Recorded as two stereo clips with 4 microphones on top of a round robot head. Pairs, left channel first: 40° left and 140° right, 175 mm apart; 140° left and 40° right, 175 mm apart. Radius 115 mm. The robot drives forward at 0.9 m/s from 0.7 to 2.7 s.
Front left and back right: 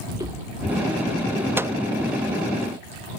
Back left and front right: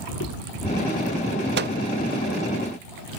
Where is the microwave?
60° right; by 1.8 s 70° right.